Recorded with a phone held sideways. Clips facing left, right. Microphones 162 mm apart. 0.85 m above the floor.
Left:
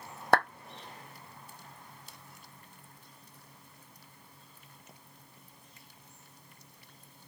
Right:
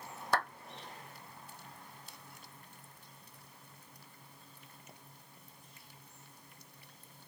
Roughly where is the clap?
Left.